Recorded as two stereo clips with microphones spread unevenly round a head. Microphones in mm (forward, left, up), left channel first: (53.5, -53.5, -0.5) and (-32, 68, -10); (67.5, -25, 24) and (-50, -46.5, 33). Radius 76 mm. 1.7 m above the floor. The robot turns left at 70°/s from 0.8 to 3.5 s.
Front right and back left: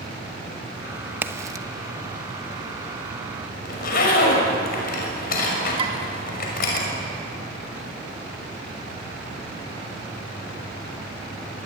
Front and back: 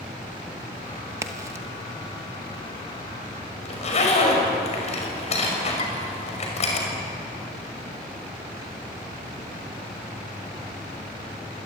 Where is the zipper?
25° right, 6 m.